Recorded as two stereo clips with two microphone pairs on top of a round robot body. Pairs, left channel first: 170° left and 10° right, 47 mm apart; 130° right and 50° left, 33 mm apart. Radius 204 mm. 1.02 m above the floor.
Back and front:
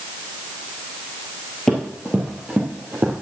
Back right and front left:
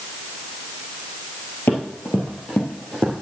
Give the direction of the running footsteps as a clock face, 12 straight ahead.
3 o'clock.